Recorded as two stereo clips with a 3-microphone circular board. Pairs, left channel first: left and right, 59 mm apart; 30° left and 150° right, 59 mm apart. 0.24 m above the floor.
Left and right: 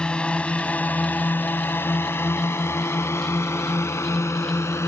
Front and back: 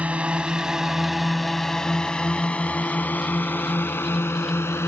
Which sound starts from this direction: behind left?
A drone, at 0.0 s.